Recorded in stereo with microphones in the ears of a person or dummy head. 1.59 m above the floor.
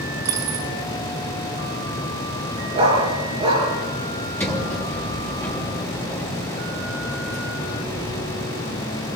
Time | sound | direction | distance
0.2 | a dropped coin | 25° right (ahead or behind) | 1.7 m
2.8 | a dog barking | 35° right (ahead or behind) | 6.5 m
4.4 | a sliding door | 15° left (ahead or behind) | 3 m